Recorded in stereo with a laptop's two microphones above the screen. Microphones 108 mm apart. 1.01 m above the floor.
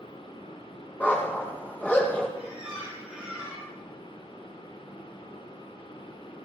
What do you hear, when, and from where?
0.0 s a fan: 55° left (ahead or behind), 3.5 m
1.0 s a dog barking: 15° left (ahead or behind), 7 m
2.4 s a squeak: 10° right (ahead or behind), 8.5 m